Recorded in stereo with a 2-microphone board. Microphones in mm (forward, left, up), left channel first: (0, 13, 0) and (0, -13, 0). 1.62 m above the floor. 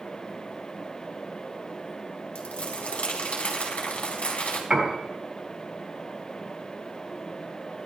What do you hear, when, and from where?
2.4 s crumpling: 55° left (ahead or behind), 4 m
4.7 s a piano: 35° right (ahead or behind), 3 m